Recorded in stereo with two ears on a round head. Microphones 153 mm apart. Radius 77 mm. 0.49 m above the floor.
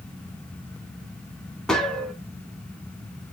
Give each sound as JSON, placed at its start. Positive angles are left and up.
{"t": 1.7, "sound": "a gunshot", "side_deg": 5, "distance_m": 0.7}